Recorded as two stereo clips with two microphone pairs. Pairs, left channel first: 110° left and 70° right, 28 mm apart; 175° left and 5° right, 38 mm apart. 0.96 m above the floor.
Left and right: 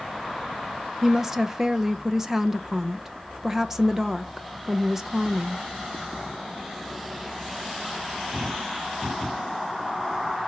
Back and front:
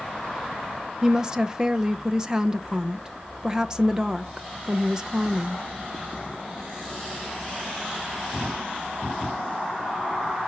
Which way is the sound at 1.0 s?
25° right.